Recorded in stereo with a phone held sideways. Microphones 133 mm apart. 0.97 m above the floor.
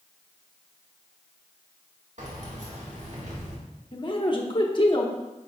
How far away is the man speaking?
About 1.0 m.